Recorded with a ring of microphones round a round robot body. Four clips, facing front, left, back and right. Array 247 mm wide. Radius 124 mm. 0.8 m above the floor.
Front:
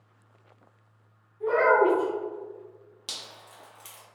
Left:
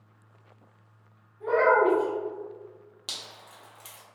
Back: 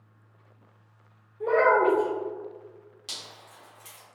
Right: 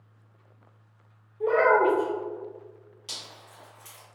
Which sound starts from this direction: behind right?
A child speaking, at 1.4 s.